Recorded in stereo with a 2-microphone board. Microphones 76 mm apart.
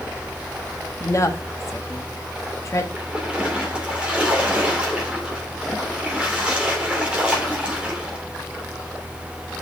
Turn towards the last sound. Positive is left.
turn(degrees=-15)  # may be behind; listen again after turning